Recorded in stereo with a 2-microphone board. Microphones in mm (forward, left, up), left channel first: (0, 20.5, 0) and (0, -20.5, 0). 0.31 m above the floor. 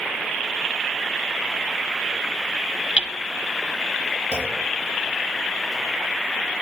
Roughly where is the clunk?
Right.